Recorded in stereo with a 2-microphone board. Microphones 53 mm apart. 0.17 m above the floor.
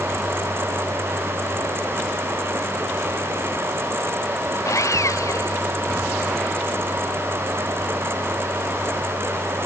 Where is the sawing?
80° left.